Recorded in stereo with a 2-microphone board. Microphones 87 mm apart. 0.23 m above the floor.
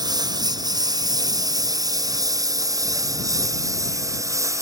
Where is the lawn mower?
50° right (ahead or behind); by 4.6 s 40° right (ahead or behind).